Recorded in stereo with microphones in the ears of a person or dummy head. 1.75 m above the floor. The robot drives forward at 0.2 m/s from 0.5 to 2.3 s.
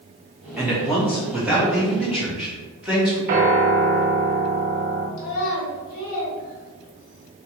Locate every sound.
0.6 s a man speaking: 5° right (ahead or behind), 1.3 m
3.3 s a piano: 50° right (ahead or behind), 0.8 m
5.2 s a child speaking: 35° left (ahead or behind), 1.2 m